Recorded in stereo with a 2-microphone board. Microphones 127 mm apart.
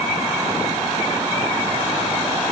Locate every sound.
Only background noise.